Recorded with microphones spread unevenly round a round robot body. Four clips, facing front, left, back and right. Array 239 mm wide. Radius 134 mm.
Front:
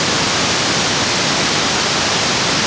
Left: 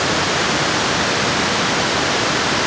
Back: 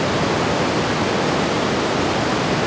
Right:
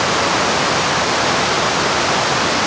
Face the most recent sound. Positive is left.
No sound to turn to.